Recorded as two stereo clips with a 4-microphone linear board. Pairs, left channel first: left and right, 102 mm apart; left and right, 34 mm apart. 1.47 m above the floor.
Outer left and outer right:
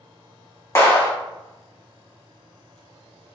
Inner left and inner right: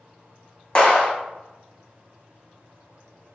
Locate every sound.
0.8 s a clap: 30° left (ahead or behind), 1.2 m